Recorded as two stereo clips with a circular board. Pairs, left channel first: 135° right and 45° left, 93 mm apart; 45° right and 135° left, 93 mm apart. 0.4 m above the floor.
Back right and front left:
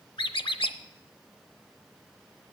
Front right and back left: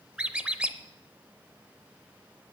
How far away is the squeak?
About 0.6 m.